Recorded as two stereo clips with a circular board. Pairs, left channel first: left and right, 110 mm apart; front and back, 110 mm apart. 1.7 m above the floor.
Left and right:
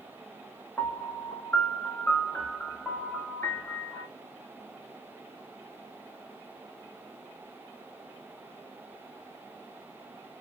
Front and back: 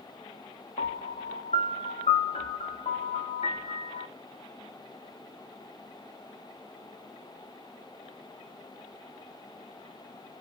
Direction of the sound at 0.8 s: 15° left.